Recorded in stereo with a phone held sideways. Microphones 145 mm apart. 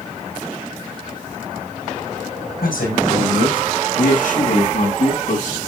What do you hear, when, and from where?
2.6 s a man speaking: 85° left, 5.5 m; by 5.6 s 55° left (ahead or behind), 8 m